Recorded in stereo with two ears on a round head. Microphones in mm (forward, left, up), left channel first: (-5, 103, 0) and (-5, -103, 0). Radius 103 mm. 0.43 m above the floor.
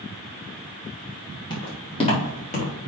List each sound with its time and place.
1.5 s footsteps: 20° left (ahead or behind), 4.5 m; by 2.7 s 35° left (ahead or behind), 4 m